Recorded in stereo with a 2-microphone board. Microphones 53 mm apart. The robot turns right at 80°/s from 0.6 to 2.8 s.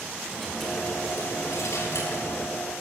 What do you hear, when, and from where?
0.3 s a dropped coin: straight ahead, 3.5 m; by 2.5 s 160° left, 3.5 m